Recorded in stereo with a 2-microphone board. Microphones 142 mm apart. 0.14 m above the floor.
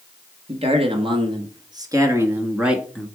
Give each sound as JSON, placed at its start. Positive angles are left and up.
{"t": 0.5, "sound": "a man speaking", "side_deg": -45, "distance_m": 2.0}